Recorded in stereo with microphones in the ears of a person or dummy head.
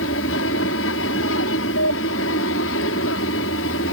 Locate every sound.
0.0 s an aircraft: 70° left (ahead or behind)